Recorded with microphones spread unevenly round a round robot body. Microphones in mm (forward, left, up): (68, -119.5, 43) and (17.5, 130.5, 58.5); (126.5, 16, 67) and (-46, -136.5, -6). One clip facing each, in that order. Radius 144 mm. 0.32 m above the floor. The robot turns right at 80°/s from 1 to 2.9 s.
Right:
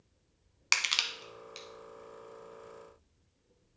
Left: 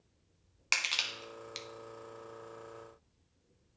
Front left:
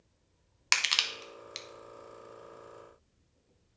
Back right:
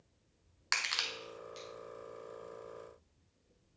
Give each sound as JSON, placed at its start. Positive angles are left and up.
{"t": 0.7, "sound": "crushing", "azimuth_deg": -5, "distance_m": 0.6}